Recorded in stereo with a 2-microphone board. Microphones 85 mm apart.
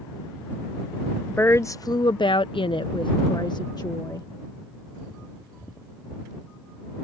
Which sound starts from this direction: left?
A woman speaking, at 1.3 s.